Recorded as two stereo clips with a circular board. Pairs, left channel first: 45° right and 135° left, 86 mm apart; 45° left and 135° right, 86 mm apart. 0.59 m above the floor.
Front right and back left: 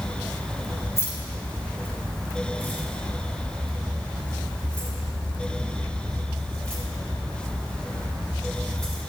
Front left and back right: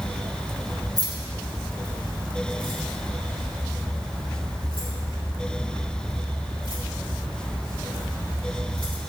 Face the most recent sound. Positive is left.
turn(degrees=-130)